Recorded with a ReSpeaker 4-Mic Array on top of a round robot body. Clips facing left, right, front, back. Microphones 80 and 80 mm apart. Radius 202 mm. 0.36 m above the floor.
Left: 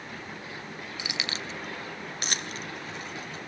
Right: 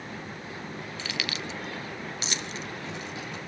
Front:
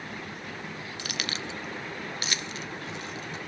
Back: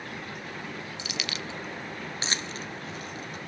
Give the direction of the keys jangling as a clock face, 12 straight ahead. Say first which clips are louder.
Even, front 4 dB; 12 o'clock.